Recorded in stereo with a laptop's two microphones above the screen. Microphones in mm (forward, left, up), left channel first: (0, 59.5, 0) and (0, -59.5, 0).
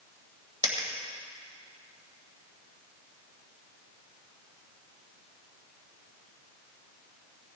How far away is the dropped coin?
About 1.9 m.